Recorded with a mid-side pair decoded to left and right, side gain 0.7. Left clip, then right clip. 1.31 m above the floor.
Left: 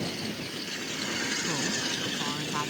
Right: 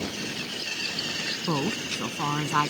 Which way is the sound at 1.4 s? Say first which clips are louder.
Right 1 dB; 40° right.